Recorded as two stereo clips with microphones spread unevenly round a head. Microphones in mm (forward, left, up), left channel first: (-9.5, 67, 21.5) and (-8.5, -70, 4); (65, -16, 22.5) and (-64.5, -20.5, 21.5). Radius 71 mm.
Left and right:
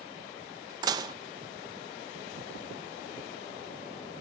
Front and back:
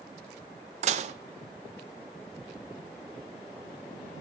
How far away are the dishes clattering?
About 0.6 m.